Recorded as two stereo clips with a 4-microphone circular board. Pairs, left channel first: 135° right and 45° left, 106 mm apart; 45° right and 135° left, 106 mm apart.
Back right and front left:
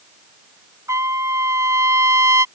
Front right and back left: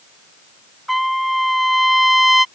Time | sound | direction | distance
0.9 | a trumpet | 45° left | ?